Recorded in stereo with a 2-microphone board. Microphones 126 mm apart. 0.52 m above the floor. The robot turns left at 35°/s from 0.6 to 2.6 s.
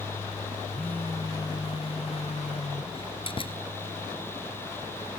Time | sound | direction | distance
0.7 | a phone buzzing | 175° left | ?
2.9 | a door slam | 45° left (ahead or behind) | ?